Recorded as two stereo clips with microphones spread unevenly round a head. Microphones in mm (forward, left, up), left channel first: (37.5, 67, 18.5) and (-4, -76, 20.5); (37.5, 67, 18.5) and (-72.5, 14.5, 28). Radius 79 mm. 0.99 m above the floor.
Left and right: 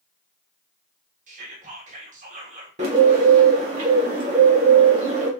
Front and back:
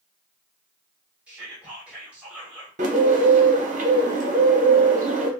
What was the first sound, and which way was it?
Whispering, 70° right.